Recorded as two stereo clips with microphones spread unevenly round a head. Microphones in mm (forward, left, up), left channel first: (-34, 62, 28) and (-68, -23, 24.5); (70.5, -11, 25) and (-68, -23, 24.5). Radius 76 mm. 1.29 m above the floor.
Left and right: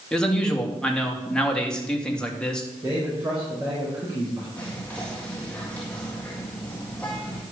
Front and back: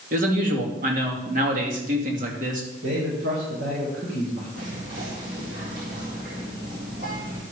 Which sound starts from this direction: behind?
A man speaking, at 2.8 s.